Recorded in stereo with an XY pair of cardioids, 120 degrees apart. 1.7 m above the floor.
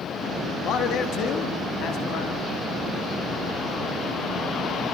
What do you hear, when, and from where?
0.6 s a man speaking: 65° left, 4 m; by 2.5 s 70° left, 5.5 m